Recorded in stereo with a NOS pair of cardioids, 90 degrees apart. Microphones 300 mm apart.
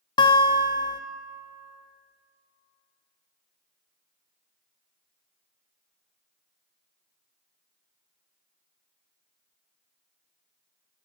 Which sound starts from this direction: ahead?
A guitar, at 0.2 s.